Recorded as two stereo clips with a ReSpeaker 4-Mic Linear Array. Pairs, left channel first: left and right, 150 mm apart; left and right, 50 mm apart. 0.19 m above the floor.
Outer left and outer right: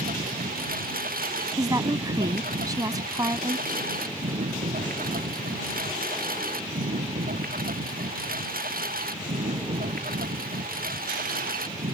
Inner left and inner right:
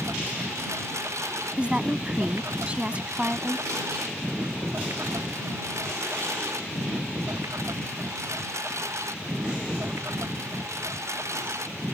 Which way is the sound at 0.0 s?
80° right.